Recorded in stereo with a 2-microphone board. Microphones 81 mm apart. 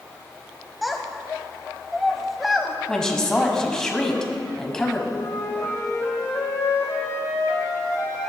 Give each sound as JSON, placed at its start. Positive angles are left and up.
{"t": 0.8, "sound": "a child speaking", "side_deg": -5, "distance_m": 0.6}
{"t": 2.9, "sound": "a woman speaking", "side_deg": 10, "distance_m": 1.2}
{"t": 5.1, "sound": "a flute", "side_deg": 40, "distance_m": 2.5}